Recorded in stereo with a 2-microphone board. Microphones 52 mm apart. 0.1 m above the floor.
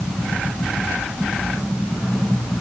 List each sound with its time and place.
Only background noise.